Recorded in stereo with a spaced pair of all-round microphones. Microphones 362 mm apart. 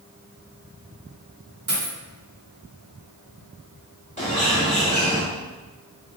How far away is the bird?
About 0.9 m.